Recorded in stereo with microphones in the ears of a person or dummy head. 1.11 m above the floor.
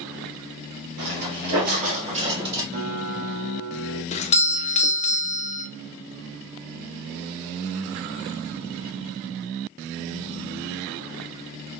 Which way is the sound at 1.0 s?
60° right (ahead or behind).